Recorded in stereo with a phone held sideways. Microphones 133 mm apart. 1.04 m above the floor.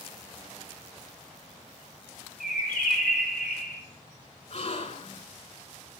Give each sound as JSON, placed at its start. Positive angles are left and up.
{"t": 2.4, "sound": "a bird", "side_deg": 70, "distance_m": 3.0}
{"t": 4.5, "sound": "a gasp", "side_deg": 55, "distance_m": 3.5}